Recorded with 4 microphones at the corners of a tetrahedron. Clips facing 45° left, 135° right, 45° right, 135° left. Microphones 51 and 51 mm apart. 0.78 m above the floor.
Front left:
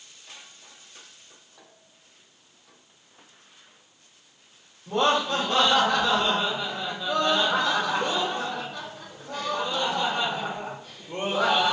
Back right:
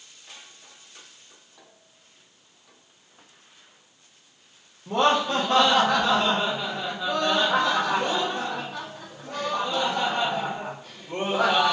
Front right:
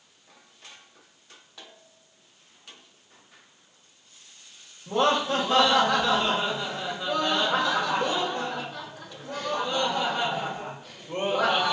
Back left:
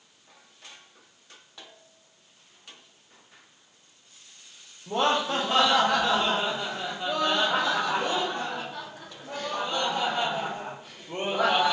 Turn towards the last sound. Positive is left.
turn(degrees=-160)